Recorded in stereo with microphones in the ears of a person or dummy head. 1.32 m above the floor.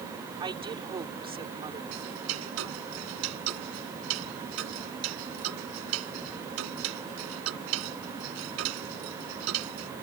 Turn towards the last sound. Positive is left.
turn(degrees=-80)